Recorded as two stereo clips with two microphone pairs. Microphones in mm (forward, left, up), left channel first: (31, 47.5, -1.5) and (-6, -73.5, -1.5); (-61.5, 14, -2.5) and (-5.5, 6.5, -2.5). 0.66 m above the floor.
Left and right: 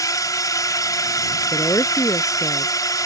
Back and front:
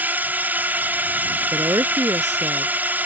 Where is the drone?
25° left.